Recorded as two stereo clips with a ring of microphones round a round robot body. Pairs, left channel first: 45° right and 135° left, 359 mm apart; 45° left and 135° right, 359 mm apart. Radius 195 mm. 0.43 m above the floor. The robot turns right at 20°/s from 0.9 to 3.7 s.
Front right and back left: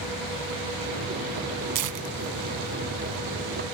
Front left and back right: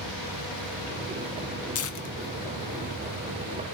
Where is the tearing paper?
100° left, 1.2 m; by 3.2 s 125° left, 1.2 m.